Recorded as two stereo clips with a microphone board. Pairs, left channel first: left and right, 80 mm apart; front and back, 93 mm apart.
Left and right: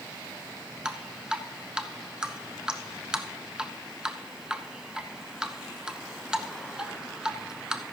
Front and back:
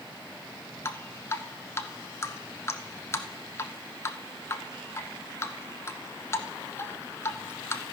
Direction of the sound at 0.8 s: 20° right.